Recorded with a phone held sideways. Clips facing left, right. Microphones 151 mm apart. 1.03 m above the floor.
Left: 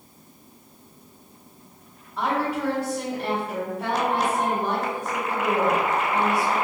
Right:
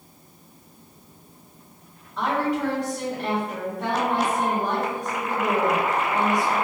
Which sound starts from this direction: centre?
A woman speaking, at 2.2 s.